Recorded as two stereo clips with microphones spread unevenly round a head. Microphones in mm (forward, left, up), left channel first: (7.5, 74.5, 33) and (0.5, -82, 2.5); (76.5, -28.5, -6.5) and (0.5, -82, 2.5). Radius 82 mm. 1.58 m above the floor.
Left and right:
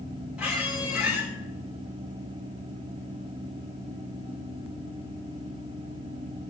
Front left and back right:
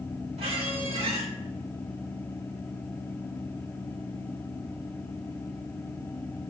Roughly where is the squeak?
Behind.